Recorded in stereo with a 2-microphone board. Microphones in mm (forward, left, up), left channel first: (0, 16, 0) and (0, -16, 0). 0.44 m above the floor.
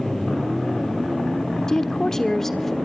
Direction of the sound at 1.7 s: 20° left (ahead or behind).